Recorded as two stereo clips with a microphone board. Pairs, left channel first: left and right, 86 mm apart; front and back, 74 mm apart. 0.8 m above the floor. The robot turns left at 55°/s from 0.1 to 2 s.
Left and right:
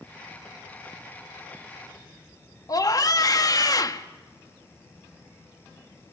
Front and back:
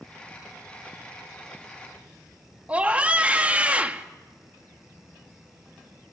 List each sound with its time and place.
2.7 s a scream: 115° left, 1.4 m